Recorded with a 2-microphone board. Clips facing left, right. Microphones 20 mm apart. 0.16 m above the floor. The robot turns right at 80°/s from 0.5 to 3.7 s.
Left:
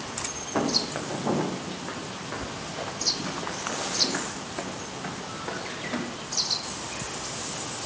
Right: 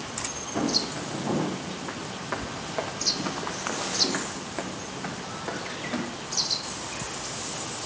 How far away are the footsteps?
About 4 m.